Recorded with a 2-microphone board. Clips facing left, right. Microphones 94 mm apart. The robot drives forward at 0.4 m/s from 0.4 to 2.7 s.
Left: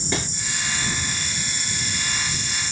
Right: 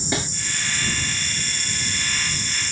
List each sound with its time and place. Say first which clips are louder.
0.1 s a snare drum: right 1 dB; 15° right (ahead or behind), 1.8 m